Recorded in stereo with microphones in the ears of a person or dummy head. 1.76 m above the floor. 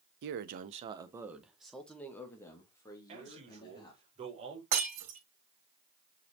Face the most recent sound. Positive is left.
turn(degrees=-45)  # may be behind; listen again after turning